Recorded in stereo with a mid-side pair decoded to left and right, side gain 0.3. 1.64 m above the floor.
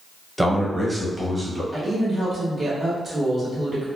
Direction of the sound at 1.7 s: 50° right.